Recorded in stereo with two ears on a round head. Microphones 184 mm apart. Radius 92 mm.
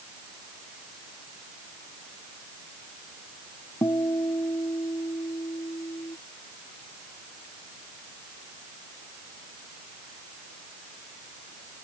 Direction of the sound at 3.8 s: 15° left (ahead or behind).